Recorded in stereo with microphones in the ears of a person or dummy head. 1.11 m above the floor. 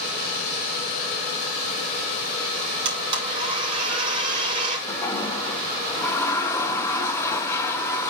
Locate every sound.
2.9 s a blender: 25° right (ahead or behind), 2.5 m
4.9 s a toilet flushing: 15° left (ahead or behind), 1.1 m